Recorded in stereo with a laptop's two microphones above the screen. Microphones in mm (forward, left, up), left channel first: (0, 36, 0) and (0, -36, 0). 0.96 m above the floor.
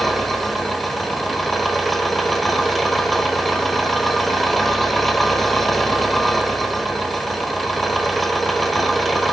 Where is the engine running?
Centre (ahead or behind), 1.2 m.